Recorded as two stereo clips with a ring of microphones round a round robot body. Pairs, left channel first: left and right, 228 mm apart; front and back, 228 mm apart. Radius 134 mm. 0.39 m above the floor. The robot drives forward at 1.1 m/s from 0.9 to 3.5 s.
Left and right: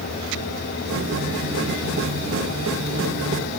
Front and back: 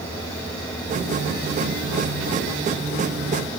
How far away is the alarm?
I don't hear an alarm.